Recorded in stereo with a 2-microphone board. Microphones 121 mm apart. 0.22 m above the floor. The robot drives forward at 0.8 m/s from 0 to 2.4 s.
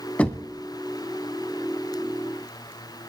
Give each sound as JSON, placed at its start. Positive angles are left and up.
{"t": 0.2, "sound": "knocking", "side_deg": 10, "distance_m": 0.9}